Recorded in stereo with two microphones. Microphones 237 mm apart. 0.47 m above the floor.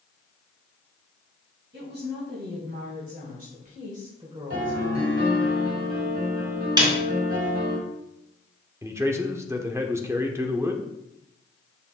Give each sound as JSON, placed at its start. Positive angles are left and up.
{"t": 1.7, "sound": "a woman speaking", "side_deg": -50, "distance_m": 3.0}
{"t": 4.5, "sound": "a piano", "side_deg": -55, "distance_m": 3.0}
{"t": 6.8, "sound": "a snare drum", "side_deg": -20, "distance_m": 2.0}
{"t": 8.8, "sound": "a man speaking", "side_deg": -10, "distance_m": 0.8}